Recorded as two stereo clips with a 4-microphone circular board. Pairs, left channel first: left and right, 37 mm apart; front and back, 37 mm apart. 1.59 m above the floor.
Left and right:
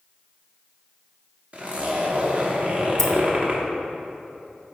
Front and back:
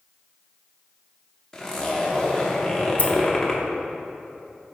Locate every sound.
1.5 s a zipper: 70° right, 0.9 m
3.0 s keys jangling: 5° left, 0.9 m